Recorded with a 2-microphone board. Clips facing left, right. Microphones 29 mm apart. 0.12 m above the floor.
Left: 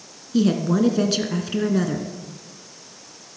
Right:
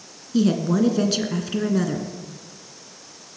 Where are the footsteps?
No footsteps in this recording.